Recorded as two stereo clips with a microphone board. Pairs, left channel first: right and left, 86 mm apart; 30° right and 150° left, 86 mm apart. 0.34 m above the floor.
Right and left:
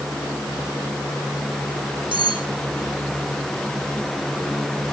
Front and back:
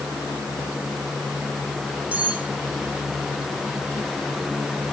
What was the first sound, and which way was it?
Cutlery clinking, 75° left.